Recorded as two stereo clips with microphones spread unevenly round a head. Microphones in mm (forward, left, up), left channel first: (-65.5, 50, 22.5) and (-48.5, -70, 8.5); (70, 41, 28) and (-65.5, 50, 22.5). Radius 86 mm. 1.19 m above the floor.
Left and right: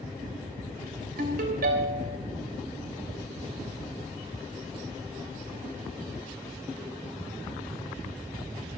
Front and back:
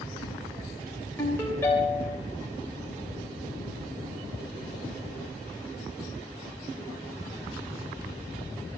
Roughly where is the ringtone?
Right.